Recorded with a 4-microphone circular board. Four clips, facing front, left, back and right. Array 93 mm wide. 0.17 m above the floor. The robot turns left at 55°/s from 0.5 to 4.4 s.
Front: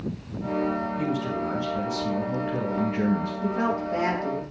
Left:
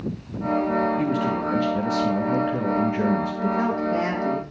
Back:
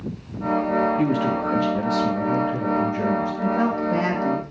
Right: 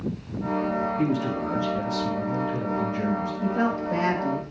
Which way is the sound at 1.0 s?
170° left.